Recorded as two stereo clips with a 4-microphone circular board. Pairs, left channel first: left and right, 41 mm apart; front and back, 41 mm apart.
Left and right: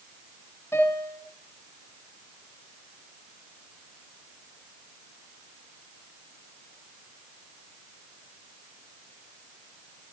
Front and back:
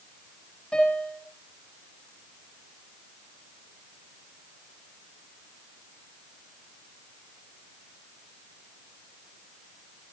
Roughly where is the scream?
I don't hear a scream.